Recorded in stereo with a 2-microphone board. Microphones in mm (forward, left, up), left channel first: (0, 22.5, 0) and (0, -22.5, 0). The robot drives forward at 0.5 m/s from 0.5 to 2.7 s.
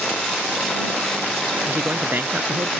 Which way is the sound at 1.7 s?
45° right (ahead or behind).